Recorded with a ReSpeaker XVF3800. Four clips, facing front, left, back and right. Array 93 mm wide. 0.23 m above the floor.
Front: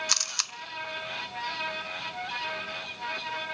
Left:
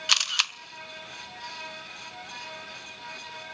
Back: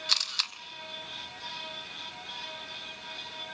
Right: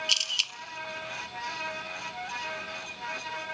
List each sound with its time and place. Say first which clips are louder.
0.1 s a camera shutter: left 4 dB, front 1 dB; 80° left, 1.2 m